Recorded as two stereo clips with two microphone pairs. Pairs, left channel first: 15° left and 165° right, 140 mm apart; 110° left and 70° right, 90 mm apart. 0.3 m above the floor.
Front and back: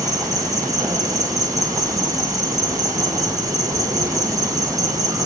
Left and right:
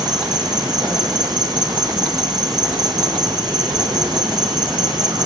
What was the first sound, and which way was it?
An insect, 100° right.